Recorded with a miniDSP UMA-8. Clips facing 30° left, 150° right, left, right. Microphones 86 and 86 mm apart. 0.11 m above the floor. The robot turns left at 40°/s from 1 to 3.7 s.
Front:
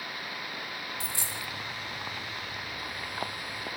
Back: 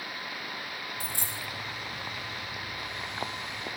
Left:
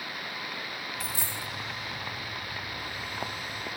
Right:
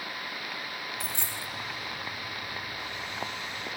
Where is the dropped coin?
Straight behind, 3 m; by 1.5 s 160° left, 3 m.